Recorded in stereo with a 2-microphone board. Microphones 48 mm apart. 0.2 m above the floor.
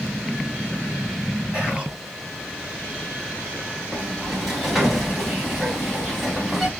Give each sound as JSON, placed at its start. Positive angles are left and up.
{"t": 1.5, "sound": "whispering", "side_deg": -20, "distance_m": 1.5}
{"t": 3.9, "sound": "a sliding door", "side_deg": 0, "distance_m": 1.0}